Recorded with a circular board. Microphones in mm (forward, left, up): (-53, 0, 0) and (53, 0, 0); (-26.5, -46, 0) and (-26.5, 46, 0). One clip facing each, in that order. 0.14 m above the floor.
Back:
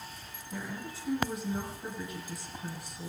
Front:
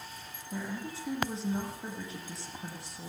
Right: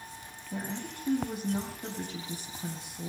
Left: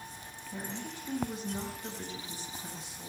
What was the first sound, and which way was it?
A woman speaking, 65° right.